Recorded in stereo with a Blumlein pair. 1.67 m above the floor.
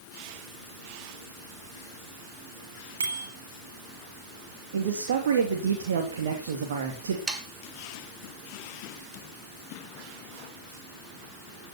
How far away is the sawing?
About 3 m.